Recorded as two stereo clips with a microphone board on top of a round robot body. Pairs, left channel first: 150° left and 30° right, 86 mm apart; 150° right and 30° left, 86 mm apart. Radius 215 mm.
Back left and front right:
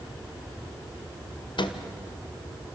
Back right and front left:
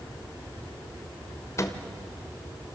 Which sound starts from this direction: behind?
A microwave, at 1.6 s.